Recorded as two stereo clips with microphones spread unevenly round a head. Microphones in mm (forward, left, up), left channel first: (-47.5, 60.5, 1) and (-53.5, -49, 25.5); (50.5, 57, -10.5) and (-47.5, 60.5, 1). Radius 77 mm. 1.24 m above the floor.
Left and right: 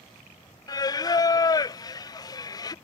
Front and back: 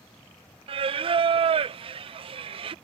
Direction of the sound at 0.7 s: 145° left.